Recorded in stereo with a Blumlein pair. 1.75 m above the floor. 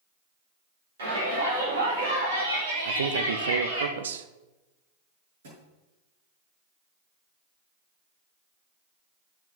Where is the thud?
60° right, 6.5 m.